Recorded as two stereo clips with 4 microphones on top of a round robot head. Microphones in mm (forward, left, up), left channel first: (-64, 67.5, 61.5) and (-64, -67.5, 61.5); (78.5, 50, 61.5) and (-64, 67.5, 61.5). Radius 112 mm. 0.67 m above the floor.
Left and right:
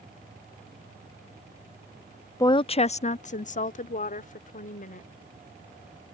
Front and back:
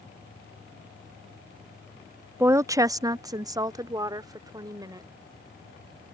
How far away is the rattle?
I don't hear a rattle.